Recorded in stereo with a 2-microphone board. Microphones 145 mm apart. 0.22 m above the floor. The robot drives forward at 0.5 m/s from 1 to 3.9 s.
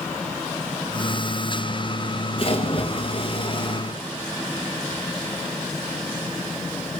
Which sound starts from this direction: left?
A splash, at 2.4 s.